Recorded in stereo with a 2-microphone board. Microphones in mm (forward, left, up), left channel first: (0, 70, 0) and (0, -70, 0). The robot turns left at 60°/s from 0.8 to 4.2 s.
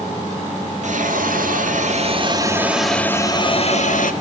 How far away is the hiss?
About 2 m.